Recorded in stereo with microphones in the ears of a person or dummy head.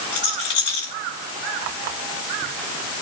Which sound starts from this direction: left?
A rattle, at 0.1 s.